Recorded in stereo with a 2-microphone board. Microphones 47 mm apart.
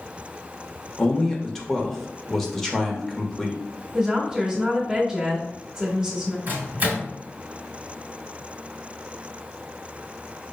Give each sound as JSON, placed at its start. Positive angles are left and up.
{"t": 1.0, "sound": "a man speaking", "side_deg": 5, "distance_m": 0.8}
{"t": 3.9, "sound": "a woman speaking", "side_deg": -20, "distance_m": 1.2}
{"t": 6.5, "sound": "a microwave", "side_deg": -40, "distance_m": 1.3}